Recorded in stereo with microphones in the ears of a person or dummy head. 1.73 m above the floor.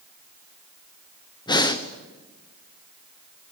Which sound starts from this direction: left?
Breathing, at 1.5 s.